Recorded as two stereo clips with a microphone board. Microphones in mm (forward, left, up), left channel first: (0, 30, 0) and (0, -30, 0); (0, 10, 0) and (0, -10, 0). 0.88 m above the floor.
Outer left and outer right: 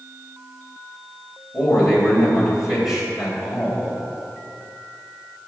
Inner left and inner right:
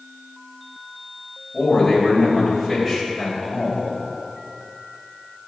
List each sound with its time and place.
1.5 s a man speaking: 10° right (ahead or behind), 5 m